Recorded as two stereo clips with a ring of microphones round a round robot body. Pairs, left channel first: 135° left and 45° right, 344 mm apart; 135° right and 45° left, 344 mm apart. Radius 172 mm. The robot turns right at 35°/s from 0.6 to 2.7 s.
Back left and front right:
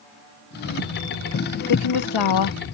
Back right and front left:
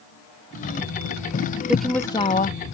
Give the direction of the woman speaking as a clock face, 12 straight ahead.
8 o'clock.